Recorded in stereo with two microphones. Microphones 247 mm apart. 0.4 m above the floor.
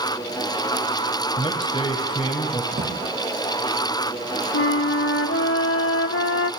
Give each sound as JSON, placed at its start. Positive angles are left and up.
{"t": 1.4, "sound": "a man speaking", "side_deg": 20, "distance_m": 2.0}
{"t": 2.7, "sound": "a drawer", "side_deg": -40, "distance_m": 5.0}
{"t": 4.5, "sound": "a flute", "side_deg": 55, "distance_m": 0.5}